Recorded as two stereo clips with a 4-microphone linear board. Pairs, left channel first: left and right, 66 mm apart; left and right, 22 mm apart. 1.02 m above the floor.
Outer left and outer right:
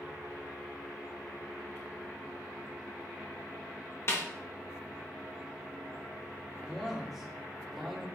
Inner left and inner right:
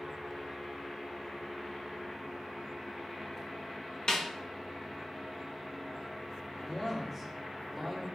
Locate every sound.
4.1 s a snare drum: 40° left (ahead or behind), 1.3 m
6.6 s a man speaking: 5° right (ahead or behind), 1.8 m